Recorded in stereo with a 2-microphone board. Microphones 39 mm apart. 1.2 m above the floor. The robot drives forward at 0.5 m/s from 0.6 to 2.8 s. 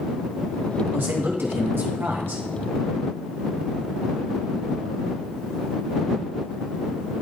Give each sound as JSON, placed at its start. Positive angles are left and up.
{"t": 0.9, "sound": "a man speaking", "side_deg": -70, "distance_m": 1.9}